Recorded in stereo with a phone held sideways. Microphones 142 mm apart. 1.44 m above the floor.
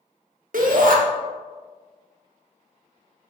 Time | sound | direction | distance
0.5 | a shout | 75° right (ahead or behind) | 0.9 m